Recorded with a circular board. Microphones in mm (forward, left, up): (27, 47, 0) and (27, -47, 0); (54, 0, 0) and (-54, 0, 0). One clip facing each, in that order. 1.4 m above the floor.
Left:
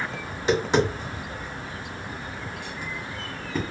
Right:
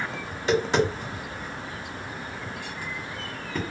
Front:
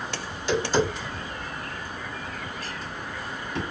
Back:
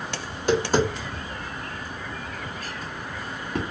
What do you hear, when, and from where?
0.3 s tapping: 160° left, 1.2 m